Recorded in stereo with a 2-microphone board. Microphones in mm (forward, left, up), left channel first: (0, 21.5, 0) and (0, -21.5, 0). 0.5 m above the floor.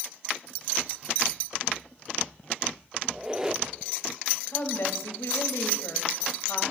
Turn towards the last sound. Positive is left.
turn(degrees=65)  # may be behind; listen again after turning